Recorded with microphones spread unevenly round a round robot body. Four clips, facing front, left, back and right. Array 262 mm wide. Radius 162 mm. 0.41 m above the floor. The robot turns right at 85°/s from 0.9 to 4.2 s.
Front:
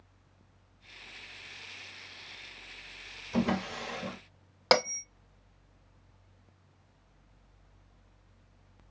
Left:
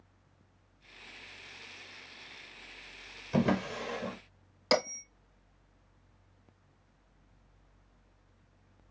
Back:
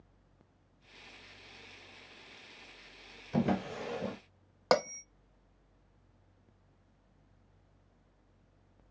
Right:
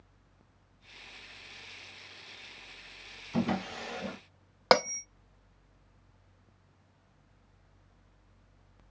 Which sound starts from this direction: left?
A drawer, at 3.3 s.